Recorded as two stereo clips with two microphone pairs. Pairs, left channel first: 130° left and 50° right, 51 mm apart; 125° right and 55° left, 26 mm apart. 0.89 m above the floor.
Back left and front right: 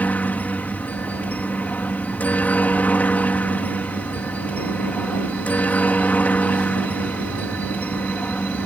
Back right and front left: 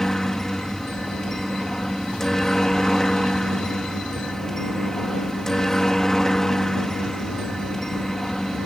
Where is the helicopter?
170° left.